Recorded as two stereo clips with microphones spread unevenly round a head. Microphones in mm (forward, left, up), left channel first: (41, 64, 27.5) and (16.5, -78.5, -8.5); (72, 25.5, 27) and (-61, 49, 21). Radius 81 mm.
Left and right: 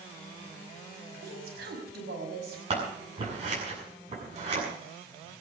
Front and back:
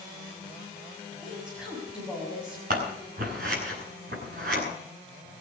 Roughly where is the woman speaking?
Right.